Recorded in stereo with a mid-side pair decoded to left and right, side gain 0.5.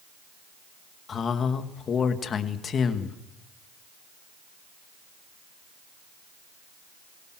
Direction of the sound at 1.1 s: 45° left.